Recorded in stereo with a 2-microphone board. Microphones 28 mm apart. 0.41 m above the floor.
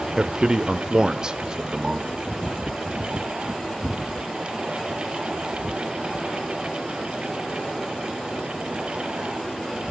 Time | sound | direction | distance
0.2 | a man speaking | 30° right (ahead or behind) | 0.9 m